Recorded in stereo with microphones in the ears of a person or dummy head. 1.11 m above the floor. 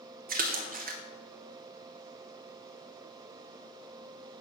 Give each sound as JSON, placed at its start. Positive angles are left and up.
{"t": 0.3, "sound": "a splash", "side_deg": -45, "distance_m": 1.0}